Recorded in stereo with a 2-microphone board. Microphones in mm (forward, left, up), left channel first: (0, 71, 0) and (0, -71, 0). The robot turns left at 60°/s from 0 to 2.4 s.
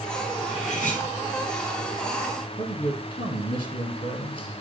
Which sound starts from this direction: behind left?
Cutlery clinking, at 0.4 s.